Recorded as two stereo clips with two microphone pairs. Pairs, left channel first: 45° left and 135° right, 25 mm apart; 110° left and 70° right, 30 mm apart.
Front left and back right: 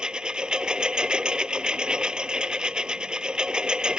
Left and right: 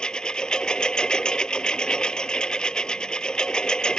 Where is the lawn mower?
175° left.